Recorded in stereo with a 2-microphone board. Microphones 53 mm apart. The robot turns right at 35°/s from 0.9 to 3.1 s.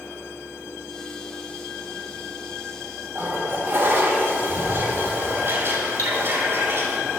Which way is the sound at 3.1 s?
50° right (ahead or behind).